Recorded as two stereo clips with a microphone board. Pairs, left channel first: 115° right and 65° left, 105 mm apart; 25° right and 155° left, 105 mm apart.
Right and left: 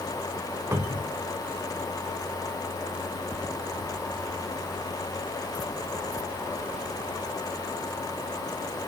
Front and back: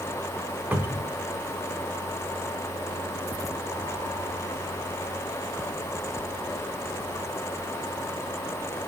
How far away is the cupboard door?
About 0.6 m.